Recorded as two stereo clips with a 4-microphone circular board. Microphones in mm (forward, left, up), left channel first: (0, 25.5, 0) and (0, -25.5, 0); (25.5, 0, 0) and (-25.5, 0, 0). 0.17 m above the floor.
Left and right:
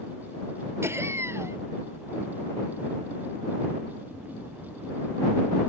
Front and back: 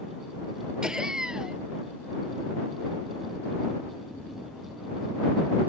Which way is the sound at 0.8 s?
105° right.